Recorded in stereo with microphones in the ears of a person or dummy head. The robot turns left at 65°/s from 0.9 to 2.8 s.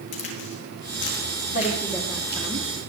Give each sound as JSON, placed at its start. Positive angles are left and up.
{"t": 0.1, "sound": "a crack", "side_deg": 55, "distance_m": 6.0}
{"t": 1.5, "sound": "a woman speaking", "azimuth_deg": 45, "distance_m": 1.7}